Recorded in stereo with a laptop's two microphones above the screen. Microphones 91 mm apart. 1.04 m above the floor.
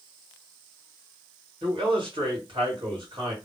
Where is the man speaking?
65° right (ahead or behind), 1.3 m.